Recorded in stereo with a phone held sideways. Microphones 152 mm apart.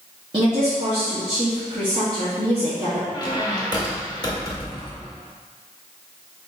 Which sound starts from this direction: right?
A woman speaking, at 0.3 s.